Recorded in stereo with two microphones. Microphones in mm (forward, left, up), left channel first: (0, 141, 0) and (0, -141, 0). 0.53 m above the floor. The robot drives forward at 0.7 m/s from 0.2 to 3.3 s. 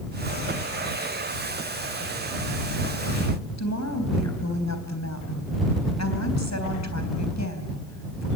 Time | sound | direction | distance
3.6 | a woman speaking | 75° left (ahead or behind) | 3.5 m